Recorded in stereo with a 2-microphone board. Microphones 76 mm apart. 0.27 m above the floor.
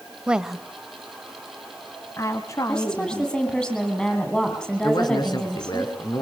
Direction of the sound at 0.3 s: 15° right (ahead or behind).